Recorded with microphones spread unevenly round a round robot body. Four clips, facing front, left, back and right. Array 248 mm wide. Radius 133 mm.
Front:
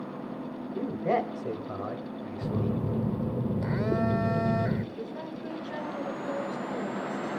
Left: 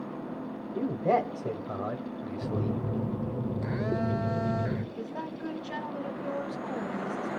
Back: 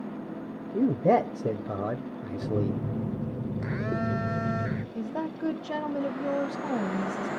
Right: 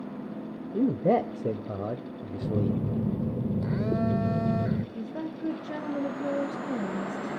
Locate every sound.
0.7 s a man speaking: 135° right, 2.0 m
2.4 s a phone buzzing: 15° right, 1.0 m
5.0 s a woman speaking: 155° right, 2.5 m